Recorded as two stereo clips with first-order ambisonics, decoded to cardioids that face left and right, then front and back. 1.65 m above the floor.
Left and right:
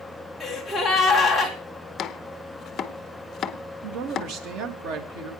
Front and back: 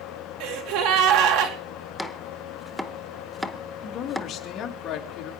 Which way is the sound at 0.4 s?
175° right.